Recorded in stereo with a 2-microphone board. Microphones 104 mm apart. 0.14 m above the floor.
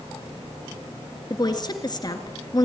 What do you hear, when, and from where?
1.3 s a woman speaking: 40° left (ahead or behind), 1.7 m